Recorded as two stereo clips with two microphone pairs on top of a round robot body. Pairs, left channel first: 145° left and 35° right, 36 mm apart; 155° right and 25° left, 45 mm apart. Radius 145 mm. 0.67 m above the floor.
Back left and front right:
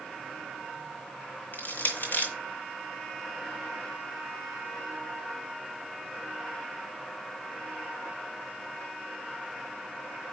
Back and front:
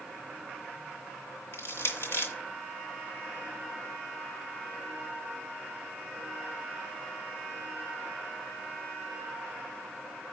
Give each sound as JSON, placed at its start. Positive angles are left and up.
{"t": 1.5, "sound": "crushing", "azimuth_deg": 180, "distance_m": 0.6}